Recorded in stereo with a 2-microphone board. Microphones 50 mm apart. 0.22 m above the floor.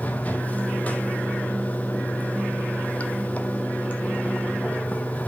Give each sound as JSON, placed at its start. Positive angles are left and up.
{"t": 0.0, "sound": "running water", "side_deg": 30, "distance_m": 0.7}